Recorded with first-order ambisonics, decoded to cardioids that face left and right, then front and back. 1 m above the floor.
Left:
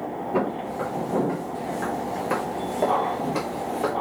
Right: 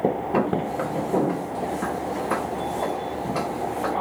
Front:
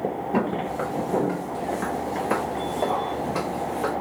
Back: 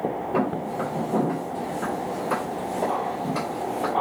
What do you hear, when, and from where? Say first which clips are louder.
0.3 s footsteps: right 2 dB, front 1 dB; 60° right, 1.2 m; by 3.9 s 70° left, 1.7 m